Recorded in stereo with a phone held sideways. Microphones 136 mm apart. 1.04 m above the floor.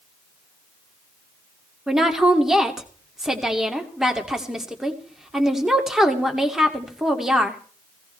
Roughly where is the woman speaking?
Centre.